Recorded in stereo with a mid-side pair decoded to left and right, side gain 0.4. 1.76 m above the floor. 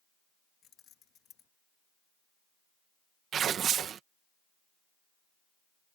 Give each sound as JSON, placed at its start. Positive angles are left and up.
{"t": 0.6, "sound": "keys jangling", "azimuth_deg": 70}
{"t": 3.3, "sound": "tearing paper", "azimuth_deg": -65}